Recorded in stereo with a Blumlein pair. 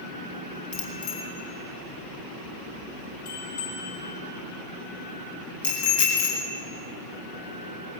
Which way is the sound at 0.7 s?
50° left.